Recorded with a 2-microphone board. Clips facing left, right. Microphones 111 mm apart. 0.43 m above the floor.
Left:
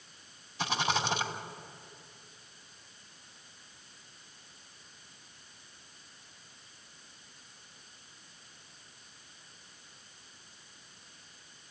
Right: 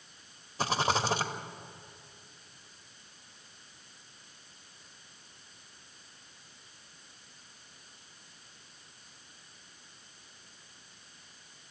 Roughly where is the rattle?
Right.